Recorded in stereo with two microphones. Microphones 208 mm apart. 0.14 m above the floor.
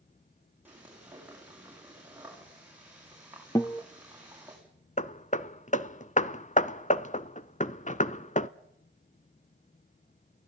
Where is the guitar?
15° left (ahead or behind), 1.0 m.